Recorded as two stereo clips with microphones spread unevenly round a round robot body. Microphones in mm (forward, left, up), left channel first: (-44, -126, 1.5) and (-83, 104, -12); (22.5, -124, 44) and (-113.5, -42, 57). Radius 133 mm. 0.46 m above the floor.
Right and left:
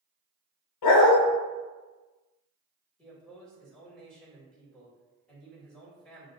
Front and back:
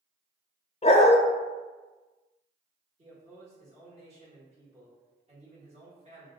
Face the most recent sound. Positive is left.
turn(degrees=-165)